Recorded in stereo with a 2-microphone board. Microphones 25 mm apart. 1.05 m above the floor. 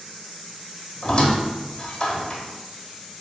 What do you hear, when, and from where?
1.0 s a squeak: 40° left (ahead or behind), 1.0 m